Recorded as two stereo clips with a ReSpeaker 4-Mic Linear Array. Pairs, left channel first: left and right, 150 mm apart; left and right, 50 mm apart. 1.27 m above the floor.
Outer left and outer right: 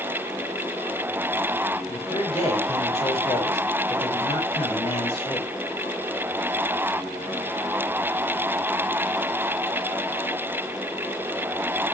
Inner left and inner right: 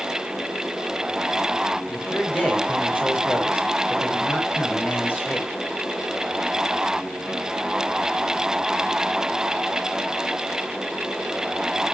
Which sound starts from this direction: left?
A man speaking, at 1.9 s.